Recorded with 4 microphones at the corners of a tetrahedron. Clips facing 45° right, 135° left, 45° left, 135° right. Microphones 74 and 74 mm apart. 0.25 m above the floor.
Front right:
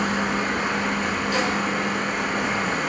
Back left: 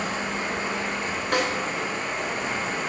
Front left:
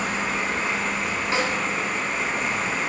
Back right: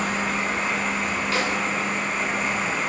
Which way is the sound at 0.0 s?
45° right.